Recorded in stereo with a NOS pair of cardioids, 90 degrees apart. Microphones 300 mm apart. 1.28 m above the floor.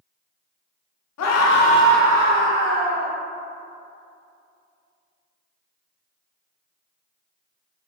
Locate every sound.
1.2 s a scream: 65° left, 0.9 m; by 3.1 s 40° right, 1.7 m